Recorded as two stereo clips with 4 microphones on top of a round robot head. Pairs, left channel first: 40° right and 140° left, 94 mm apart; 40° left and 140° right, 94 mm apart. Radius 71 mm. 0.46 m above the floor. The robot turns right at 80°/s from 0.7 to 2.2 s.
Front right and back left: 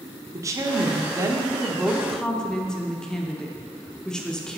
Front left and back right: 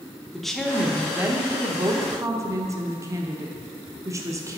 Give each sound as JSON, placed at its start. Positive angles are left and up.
{"t": 0.3, "sound": "a woman speaking", "azimuth_deg": 125, "distance_m": 0.9}